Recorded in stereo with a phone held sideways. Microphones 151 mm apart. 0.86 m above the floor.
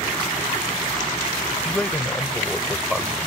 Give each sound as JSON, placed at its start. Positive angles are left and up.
{"t": 1.6, "sound": "a man speaking", "side_deg": 5}